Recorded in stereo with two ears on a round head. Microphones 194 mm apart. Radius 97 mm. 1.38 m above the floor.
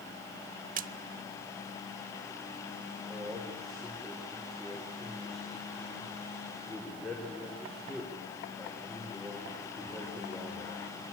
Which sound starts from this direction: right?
A splash, at 0.8 s.